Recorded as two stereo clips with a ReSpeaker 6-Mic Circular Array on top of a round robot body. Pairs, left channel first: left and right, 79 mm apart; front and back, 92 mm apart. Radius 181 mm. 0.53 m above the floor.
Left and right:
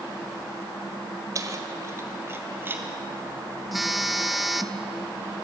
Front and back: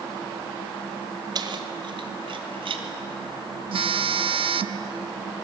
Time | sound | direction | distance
1.4 | keys jangling | 140° right | 1.7 m
3.7 | a phone buzzing | straight behind | 1.0 m